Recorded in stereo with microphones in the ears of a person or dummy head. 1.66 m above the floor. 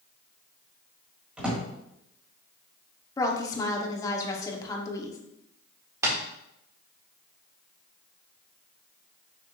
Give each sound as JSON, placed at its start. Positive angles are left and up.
{"t": 1.4, "sound": "a drawer", "side_deg": -5, "distance_m": 1.5}
{"t": 3.2, "sound": "a woman speaking", "side_deg": 20, "distance_m": 0.9}
{"t": 6.0, "sound": "tapping", "side_deg": -20, "distance_m": 1.9}